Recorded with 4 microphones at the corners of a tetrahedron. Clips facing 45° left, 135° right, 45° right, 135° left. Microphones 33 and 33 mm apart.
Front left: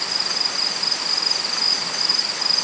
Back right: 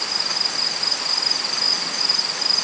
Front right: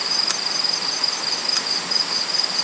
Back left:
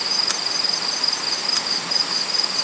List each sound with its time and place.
Only background noise.